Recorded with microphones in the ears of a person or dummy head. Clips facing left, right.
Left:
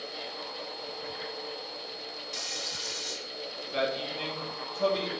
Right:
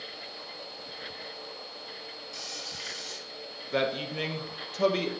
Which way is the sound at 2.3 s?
20° left (ahead or behind).